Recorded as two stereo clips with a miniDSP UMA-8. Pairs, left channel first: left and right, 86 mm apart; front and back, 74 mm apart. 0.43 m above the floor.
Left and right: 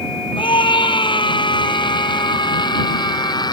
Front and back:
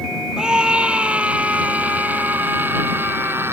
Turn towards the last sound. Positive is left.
turn(degrees=120)